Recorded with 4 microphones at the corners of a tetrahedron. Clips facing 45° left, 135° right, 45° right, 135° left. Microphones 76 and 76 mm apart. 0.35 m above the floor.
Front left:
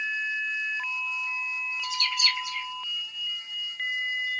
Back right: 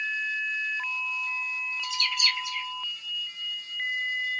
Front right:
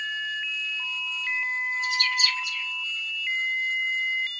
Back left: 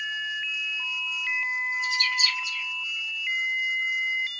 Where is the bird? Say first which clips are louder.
Front left 1 dB, front right 1 dB; 35° right, 1.8 m.